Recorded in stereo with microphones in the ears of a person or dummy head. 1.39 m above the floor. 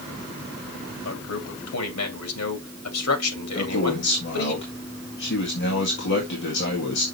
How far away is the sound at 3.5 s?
About 1.9 m.